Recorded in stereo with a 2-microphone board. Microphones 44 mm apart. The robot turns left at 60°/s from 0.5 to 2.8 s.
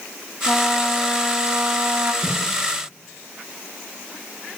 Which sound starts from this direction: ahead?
A trumpet, at 0.5 s.